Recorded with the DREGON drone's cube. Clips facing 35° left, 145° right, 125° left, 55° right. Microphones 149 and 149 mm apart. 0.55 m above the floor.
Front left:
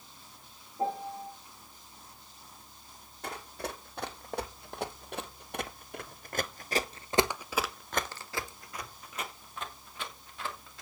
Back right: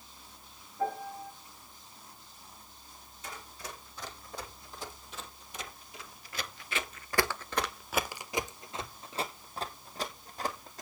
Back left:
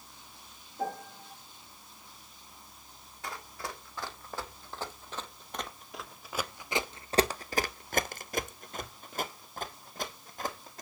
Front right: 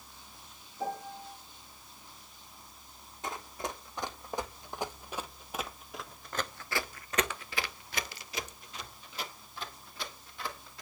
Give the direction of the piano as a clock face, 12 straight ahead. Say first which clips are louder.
Front left 1 dB, back left 1 dB; 9 o'clock.